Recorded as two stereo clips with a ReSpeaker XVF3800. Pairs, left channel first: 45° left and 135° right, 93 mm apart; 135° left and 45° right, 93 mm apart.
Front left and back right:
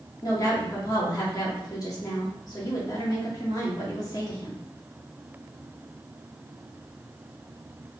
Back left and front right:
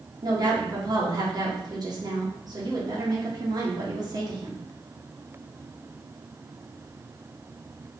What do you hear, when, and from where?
0.2 s a woman speaking: 5° right, 1.4 m